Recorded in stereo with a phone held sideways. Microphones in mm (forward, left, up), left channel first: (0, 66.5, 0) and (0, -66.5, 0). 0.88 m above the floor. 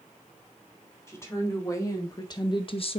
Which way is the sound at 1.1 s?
20° left (ahead or behind).